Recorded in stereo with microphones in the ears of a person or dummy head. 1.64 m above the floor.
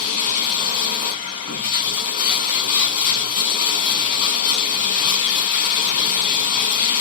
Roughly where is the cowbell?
I don't hear a cowbell.